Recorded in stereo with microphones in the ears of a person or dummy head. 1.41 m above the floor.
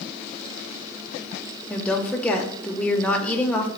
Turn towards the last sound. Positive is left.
turn(degrees=5)  # may be behind; listen again after turning